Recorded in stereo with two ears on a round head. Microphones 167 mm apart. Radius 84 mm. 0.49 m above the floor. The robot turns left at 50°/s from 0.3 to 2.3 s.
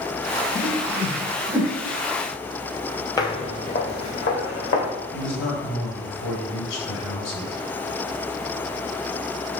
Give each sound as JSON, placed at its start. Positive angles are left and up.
{"t": 0.6, "sound": "a whoosh", "side_deg": 45, "distance_m": 1.0}
{"t": 3.2, "sound": "footsteps", "side_deg": 20, "distance_m": 0.8}
{"t": 5.1, "sound": "a man speaking", "side_deg": 65, "distance_m": 2.0}